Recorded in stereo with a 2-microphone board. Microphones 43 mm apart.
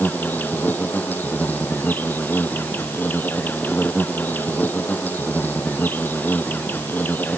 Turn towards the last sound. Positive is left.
turn(degrees=50)  # may be behind; listen again after turning